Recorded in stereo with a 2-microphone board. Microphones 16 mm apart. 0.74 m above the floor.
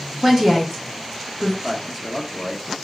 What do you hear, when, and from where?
0.2 s a woman speaking: 5° left (ahead or behind), 0.8 m
1.6 s a man speaking: 10° left (ahead or behind), 0.8 m